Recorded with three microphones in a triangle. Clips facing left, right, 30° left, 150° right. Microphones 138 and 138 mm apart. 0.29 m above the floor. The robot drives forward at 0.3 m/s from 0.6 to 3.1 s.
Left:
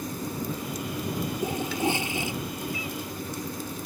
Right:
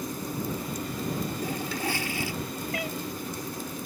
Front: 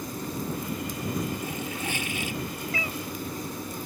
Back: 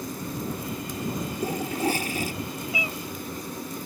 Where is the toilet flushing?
160° left.